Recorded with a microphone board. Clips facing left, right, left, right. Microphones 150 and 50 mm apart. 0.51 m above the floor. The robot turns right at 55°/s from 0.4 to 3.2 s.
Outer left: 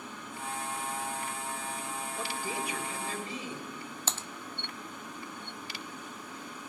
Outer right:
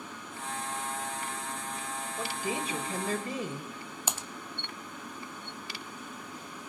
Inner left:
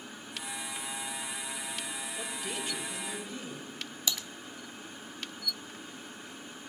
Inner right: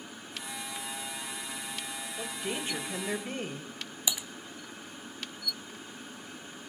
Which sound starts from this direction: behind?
A woman speaking, at 2.2 s.